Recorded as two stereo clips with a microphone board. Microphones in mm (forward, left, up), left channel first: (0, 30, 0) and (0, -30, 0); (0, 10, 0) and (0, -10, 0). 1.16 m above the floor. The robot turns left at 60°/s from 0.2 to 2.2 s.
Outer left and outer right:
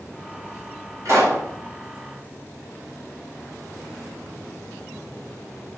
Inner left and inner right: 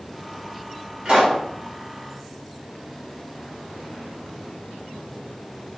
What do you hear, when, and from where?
1.1 s a pop: 60° right (ahead or behind), 4.5 m; by 1.4 s 40° right (ahead or behind), 4.5 m